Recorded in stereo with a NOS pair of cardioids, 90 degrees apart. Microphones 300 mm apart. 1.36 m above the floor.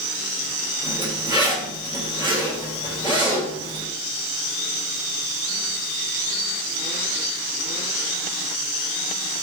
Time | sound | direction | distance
0.8 | a zipper | 15° right | 2 m